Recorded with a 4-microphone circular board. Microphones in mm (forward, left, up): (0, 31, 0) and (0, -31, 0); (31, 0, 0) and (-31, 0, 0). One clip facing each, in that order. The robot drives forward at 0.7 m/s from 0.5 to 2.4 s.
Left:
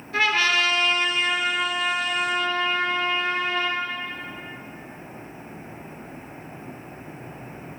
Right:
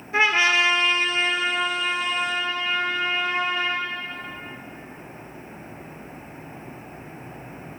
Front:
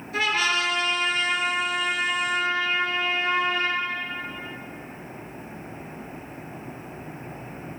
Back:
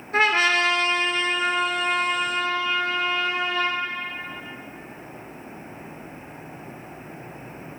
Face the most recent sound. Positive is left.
turn(degrees=-170)